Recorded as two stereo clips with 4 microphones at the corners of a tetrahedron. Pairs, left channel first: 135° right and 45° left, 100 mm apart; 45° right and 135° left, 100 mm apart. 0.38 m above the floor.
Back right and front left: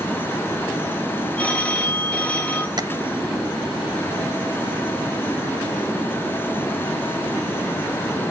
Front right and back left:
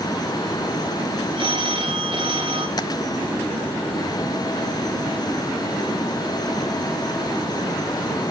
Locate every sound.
1.4 s a phone ringing: 150° left, 1.3 m
2.8 s tapping: straight ahead, 0.6 m